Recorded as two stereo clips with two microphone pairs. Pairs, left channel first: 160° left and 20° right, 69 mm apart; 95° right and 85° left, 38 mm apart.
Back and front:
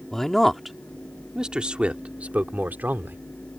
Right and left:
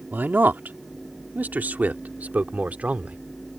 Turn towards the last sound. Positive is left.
turn(degrees=40)